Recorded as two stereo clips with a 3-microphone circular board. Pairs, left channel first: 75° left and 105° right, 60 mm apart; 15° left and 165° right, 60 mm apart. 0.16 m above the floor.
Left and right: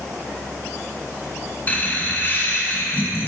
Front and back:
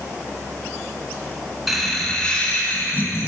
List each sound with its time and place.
1.7 s laughter: 110° left, 2.0 m; by 3.3 s 35° left, 2.5 m